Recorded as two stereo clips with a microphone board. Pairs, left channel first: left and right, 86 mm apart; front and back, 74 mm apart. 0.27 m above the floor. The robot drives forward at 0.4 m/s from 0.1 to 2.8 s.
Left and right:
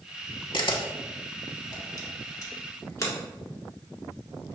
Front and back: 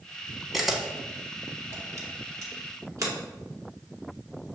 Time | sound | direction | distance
0.5 | a camera shutter | 90° left | 0.7 m